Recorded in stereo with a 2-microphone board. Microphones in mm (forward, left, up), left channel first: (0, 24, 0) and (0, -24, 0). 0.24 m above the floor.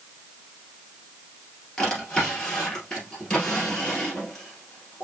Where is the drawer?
20° left (ahead or behind), 2.5 m.